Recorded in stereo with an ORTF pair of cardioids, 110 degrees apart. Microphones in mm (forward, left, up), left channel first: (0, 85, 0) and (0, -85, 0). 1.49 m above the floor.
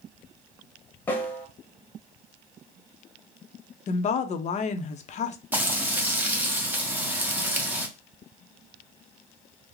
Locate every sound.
1.1 s a snare drum: 10° left, 1.2 m
3.9 s a woman speaking: 45° left, 0.6 m
5.5 s frying: 10° right, 1.0 m